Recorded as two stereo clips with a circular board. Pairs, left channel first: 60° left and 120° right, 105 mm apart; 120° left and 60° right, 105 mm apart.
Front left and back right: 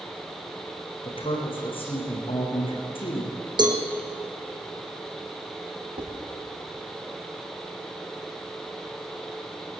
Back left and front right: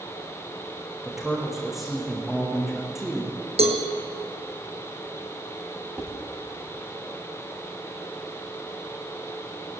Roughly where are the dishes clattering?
Behind right.